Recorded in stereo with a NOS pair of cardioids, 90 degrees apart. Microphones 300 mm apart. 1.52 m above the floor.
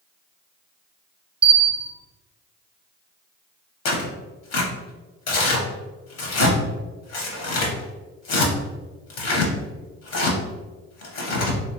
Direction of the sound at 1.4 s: 20° right.